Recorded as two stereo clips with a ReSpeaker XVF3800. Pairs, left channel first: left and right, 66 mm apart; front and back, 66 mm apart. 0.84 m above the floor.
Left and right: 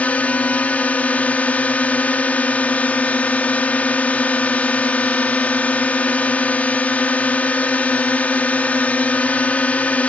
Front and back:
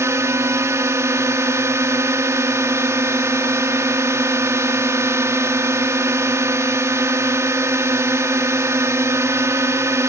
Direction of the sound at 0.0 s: 155° left.